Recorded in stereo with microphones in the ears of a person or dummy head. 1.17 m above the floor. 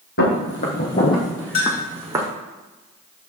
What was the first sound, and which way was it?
Footsteps, 60° left (ahead or behind).